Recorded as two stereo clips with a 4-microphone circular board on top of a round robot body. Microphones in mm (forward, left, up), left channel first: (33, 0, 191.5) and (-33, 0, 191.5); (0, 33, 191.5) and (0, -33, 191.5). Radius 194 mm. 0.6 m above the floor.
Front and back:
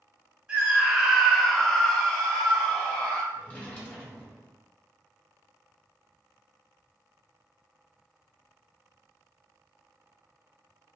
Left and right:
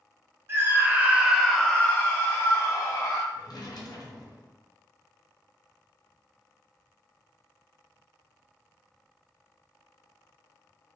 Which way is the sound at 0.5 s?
115° right.